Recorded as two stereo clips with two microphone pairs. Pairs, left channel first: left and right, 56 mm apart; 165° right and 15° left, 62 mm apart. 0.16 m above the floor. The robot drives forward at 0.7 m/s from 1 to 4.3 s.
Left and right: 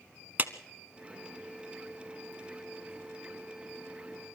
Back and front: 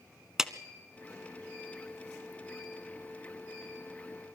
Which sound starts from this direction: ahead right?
A clap, at 0.4 s.